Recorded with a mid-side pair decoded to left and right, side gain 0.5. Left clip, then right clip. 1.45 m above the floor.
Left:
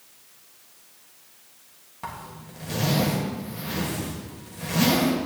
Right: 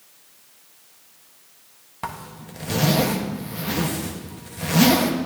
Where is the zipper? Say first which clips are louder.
Right 4 dB; 40° right, 1.3 m.